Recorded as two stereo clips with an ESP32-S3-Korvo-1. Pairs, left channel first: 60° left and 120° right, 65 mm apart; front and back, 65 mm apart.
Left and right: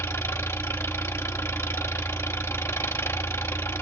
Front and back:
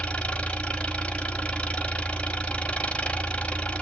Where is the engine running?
60° left, 0.8 m.